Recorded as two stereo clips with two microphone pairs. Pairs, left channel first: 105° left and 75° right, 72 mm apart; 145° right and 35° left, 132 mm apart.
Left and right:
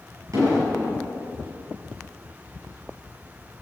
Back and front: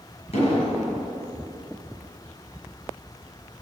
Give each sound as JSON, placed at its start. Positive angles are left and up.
{"t": 0.3, "sound": "an explosion", "azimuth_deg": -105, "distance_m": 6.5}